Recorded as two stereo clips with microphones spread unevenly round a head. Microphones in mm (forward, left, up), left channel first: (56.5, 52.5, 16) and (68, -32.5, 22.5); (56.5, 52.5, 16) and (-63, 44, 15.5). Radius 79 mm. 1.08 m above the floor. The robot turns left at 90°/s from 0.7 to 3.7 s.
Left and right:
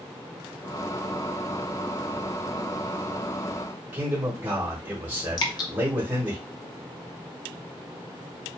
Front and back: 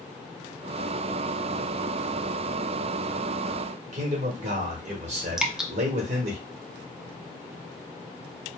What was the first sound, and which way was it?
A man speaking, 155° right.